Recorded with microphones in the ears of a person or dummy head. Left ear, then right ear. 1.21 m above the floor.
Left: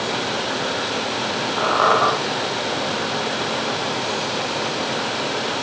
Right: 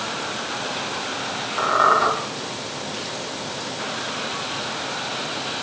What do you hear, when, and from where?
1.6 s a squeak: centre (ahead or behind), 1.8 m